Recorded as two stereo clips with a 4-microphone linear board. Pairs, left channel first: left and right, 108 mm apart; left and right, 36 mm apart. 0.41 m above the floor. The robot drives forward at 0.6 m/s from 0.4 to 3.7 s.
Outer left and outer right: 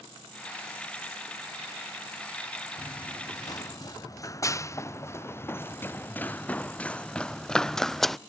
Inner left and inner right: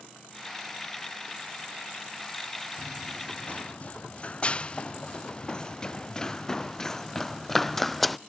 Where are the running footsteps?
45° left (ahead or behind); by 8.2 s centre (ahead or behind).